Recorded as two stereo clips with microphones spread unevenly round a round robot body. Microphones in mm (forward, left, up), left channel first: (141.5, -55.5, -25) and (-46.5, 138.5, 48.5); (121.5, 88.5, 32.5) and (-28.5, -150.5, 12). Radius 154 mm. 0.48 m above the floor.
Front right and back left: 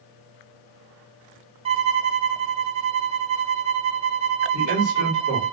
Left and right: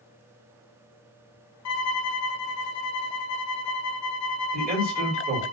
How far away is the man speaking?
About 1.6 m.